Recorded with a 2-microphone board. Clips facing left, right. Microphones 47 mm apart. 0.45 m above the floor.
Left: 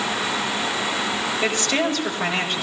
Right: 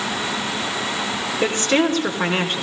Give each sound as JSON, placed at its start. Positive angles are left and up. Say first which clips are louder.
{"t": 1.4, "sound": "a woman speaking", "louder": "right 5 dB", "side_deg": -45, "distance_m": 5.5}